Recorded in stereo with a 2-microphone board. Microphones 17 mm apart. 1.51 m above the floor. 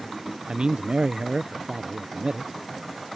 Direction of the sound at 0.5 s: 65° right (ahead or behind).